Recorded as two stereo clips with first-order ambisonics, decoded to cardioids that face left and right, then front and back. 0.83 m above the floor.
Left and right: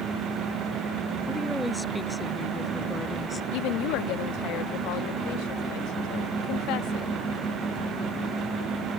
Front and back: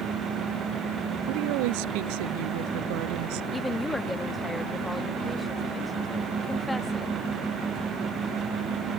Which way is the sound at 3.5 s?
85° left.